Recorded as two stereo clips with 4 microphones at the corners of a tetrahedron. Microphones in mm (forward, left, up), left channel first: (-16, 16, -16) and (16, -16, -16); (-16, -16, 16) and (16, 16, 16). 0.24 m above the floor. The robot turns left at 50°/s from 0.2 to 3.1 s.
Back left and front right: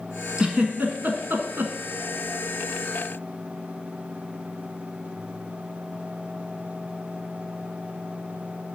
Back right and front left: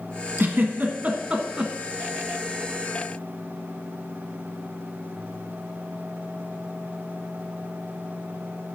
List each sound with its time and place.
0.4 s a giggle: 30° left, 1.3 m; by 1.7 s 40° right, 1.3 m